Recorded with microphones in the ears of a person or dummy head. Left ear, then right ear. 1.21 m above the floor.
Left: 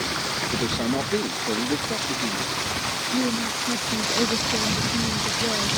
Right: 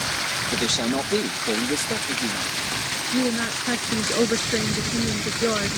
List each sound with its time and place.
0.5 s a man speaking: 60° right (ahead or behind)
3.1 s a woman speaking: 50° right (ahead or behind)